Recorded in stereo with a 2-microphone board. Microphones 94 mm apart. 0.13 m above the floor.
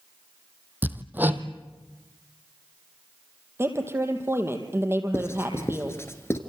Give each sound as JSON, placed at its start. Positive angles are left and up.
{"t": 0.8, "sound": "hammering", "side_deg": -20, "distance_m": 1.6}
{"t": 3.6, "sound": "a woman speaking", "side_deg": -25, "distance_m": 4.0}
{"t": 5.1, "sound": "writing", "side_deg": 30, "distance_m": 2.5}